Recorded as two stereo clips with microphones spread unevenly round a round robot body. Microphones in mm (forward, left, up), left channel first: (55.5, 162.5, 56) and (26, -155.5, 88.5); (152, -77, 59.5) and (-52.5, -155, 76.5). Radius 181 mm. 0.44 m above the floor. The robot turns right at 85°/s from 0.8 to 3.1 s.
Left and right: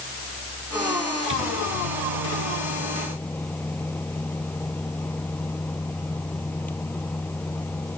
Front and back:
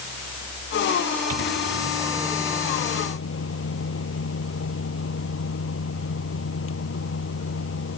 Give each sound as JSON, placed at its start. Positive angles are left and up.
{"t": 1.3, "sound": "a microwave", "azimuth_deg": -155}